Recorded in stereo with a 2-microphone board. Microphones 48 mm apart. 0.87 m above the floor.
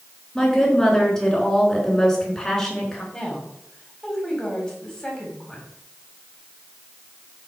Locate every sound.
0.3 s a woman speaking: 15° left (ahead or behind), 3.5 m
3.1 s a woman speaking: 15° left (ahead or behind), 3.5 m